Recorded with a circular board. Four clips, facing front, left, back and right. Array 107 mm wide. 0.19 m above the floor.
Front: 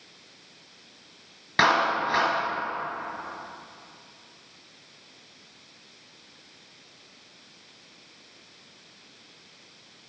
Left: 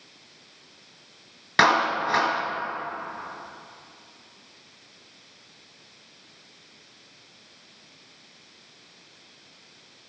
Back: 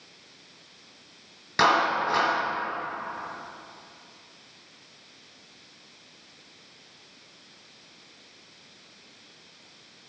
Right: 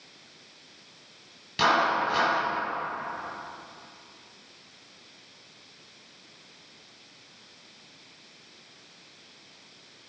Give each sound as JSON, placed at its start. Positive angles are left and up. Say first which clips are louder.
{"t": 1.6, "sound": "a clap", "louder": "left 2 dB, even", "azimuth_deg": 80, "distance_m": 2.5}